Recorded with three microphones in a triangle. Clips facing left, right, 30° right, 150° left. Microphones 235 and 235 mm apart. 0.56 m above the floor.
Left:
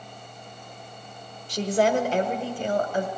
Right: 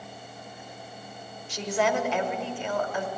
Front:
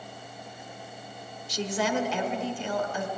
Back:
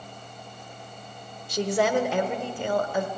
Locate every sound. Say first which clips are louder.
1.5 s a woman speaking: left 4 dB, back 5 dB; 135° left, 1.6 m